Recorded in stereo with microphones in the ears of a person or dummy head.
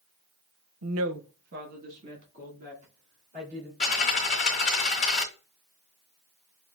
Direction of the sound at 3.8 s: 25° left (ahead or behind).